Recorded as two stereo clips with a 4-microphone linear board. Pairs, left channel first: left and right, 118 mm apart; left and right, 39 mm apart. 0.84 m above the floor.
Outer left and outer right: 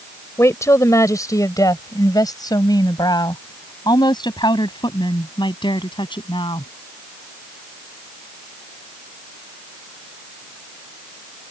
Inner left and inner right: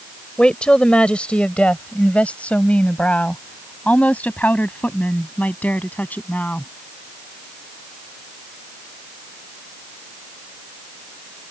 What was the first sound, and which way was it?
A woman speaking, 25° left (ahead or behind).